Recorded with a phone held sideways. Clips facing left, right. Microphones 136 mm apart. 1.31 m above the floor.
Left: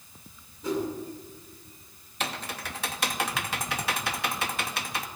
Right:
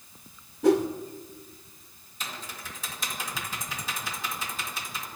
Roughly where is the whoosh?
Right.